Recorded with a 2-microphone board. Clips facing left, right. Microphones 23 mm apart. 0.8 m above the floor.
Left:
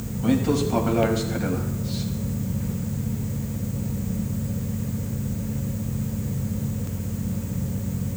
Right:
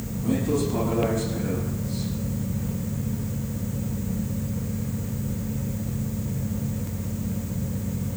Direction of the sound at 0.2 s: 80° left.